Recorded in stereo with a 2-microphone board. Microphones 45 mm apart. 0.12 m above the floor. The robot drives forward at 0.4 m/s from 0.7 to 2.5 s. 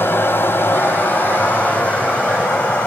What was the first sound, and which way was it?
Running water, 55° left (ahead or behind).